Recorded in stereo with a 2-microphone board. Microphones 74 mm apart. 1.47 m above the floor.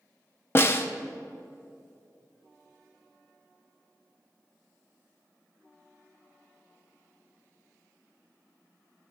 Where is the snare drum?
35° left (ahead or behind), 0.6 m.